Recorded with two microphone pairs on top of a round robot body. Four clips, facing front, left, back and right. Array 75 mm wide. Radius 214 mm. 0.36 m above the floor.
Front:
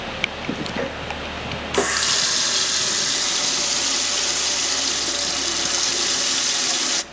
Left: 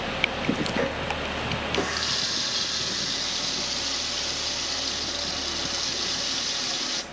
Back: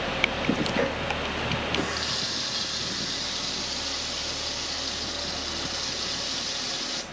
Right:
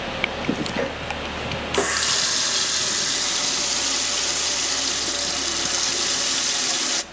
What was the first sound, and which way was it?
A running tap, 40° right.